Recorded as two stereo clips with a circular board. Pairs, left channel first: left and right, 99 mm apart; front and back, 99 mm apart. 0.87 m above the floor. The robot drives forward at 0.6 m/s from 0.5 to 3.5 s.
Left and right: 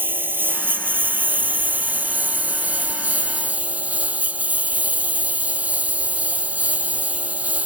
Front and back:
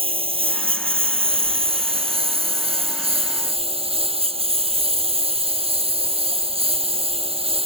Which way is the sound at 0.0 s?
160° right.